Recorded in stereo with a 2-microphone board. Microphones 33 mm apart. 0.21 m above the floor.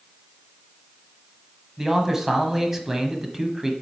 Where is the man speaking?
15° right (ahead or behind), 1.1 m.